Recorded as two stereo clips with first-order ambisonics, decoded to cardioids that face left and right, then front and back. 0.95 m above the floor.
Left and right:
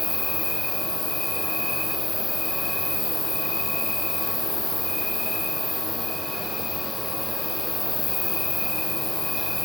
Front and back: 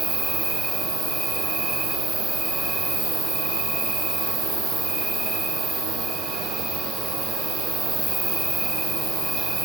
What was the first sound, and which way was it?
An insect, 135° left.